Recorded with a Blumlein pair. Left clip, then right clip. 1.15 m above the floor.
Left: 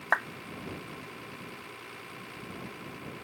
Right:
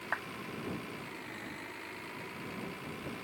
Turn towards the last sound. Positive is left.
turn(degrees=65)